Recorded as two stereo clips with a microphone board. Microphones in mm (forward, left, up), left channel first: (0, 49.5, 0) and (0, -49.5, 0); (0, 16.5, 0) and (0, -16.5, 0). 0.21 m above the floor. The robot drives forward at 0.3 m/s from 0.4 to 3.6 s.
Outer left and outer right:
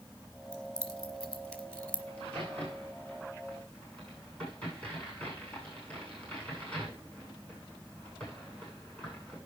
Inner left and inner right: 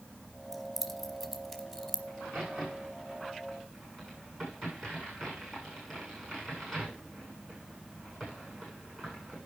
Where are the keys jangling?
10° left (ahead or behind), 2 m.